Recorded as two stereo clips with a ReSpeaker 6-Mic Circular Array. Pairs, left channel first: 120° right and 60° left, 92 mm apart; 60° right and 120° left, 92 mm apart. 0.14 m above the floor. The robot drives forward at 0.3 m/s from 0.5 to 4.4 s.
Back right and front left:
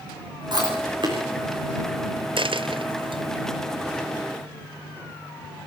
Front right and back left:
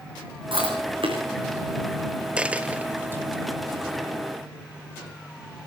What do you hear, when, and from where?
0.5 s chewing: 95° left, 7 m
2.4 s a dropped coin: 45° left, 0.9 m; by 3.2 s 55° left, 0.8 m